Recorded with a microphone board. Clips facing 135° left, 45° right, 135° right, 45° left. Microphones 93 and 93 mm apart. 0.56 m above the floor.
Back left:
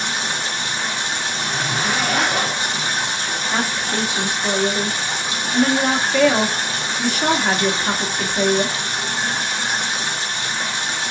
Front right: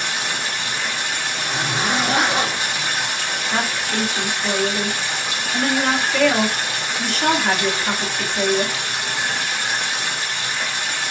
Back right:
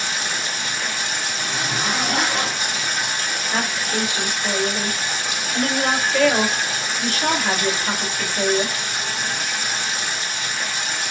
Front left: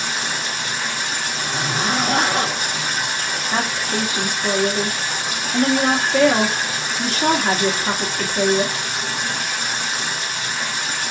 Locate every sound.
0.0 s running water: 70° left, 1.7 m
1.3 s a zipper: 20° left, 0.9 m
3.5 s a woman speaking: 60° left, 1.2 m